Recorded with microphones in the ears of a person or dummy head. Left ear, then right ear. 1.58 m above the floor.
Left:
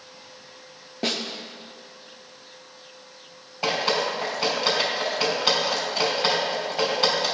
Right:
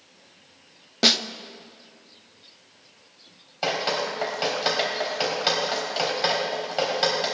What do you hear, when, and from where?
1.0 s a snare drum: 40° right (ahead or behind), 0.6 m
3.6 s dripping: 40° right (ahead or behind), 3 m